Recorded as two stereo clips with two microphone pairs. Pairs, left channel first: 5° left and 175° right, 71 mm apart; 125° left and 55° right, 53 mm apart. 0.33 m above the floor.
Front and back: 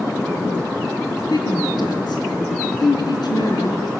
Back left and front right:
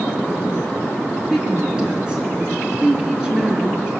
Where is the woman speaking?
15° left, 3.5 m.